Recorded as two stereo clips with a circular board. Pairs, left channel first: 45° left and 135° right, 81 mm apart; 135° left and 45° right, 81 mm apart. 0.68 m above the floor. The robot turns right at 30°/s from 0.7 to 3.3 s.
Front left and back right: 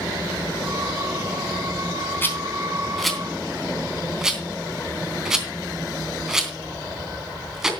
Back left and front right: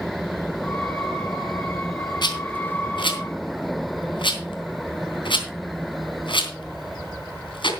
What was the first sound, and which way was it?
A rattle, 110° left.